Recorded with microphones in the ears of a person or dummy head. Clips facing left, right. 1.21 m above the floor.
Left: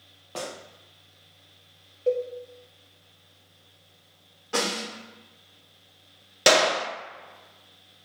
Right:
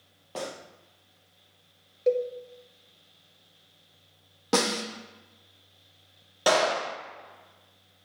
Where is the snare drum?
70° right (ahead or behind), 1.0 m.